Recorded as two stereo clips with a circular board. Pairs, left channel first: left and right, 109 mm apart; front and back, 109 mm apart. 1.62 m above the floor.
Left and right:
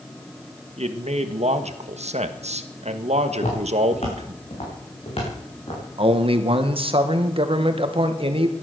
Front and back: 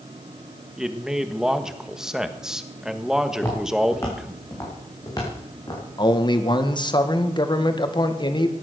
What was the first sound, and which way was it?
A man speaking, 95° right.